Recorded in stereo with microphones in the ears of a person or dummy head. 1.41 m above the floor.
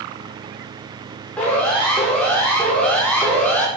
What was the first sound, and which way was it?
A siren, 10° left (ahead or behind).